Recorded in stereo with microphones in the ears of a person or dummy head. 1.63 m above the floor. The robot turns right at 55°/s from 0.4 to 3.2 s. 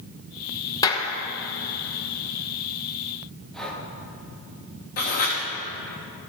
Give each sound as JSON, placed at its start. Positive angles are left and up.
{"t": 0.8, "sound": "a clap", "side_deg": 25, "distance_m": 1.1}
{"t": 3.5, "sound": "breathing", "side_deg": 5, "distance_m": 1.3}
{"t": 5.0, "sound": "writing", "side_deg": 45, "distance_m": 1.8}